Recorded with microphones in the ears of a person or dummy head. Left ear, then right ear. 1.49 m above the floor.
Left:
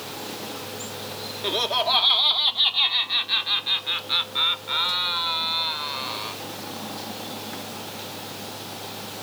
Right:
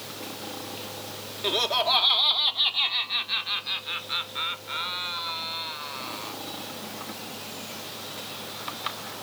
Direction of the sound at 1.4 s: 10° right (ahead or behind).